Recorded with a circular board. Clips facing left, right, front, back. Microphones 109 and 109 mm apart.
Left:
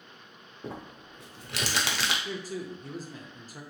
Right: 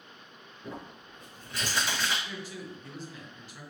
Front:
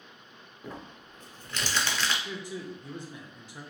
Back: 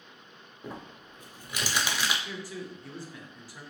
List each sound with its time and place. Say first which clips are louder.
0.6 s crumpling: left 2 dB, back 1 dB; 100° left, 0.6 m
2.2 s a man speaking: left 5 dB, front 1 dB; 60° left, 0.7 m